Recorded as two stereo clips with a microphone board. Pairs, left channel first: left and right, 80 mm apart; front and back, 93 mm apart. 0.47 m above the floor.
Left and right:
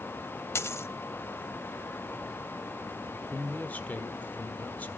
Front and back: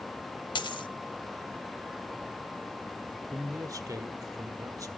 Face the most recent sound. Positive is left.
turn(degrees=150)